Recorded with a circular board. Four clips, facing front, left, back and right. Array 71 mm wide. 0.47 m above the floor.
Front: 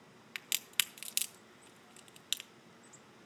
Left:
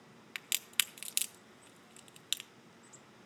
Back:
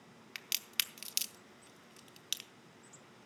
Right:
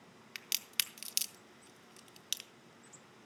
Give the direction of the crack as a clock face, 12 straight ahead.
10 o'clock.